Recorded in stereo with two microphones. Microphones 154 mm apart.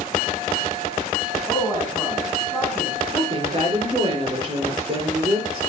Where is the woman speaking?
30° right (ahead or behind), 6 m.